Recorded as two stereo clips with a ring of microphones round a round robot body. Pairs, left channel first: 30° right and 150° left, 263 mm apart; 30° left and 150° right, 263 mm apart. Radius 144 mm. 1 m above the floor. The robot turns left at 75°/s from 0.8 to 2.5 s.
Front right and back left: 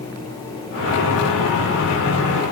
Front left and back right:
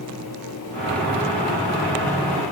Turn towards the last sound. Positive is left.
No sound to turn to.